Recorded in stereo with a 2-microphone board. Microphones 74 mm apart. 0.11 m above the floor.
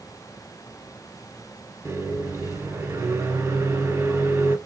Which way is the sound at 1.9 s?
35° right (ahead or behind).